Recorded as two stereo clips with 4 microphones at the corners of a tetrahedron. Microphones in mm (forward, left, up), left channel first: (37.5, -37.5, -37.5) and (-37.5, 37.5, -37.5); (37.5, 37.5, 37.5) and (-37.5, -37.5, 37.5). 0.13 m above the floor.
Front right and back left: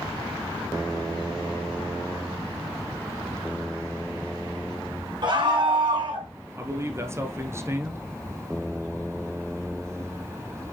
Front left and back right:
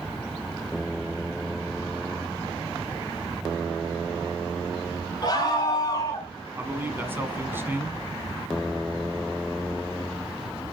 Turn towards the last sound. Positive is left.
turn(degrees=170)